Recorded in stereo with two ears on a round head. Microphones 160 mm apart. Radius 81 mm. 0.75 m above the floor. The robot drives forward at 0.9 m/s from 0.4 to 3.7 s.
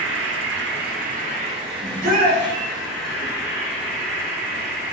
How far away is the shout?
About 2.5 m.